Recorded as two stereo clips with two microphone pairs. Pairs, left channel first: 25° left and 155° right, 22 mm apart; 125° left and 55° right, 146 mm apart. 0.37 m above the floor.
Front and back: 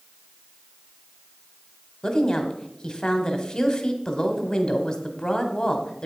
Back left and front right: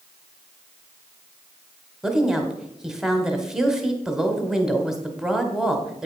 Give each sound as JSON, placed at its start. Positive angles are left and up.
{"t": 2.0, "sound": "a woman speaking", "azimuth_deg": 25, "distance_m": 1.2}